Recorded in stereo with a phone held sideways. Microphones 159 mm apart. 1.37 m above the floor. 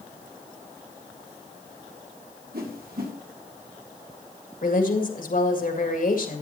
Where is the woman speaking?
65° left (ahead or behind), 2.0 m.